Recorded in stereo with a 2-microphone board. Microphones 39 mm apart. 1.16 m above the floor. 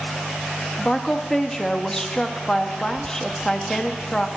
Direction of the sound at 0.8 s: 15° left (ahead or behind).